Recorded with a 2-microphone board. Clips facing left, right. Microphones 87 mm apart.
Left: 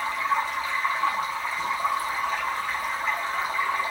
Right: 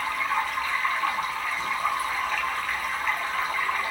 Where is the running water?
25° left (ahead or behind), 1.4 m.